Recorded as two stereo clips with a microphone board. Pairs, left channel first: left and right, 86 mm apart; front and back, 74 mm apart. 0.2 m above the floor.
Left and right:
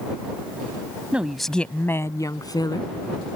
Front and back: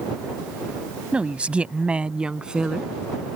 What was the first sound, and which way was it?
A woman speaking, 135° right.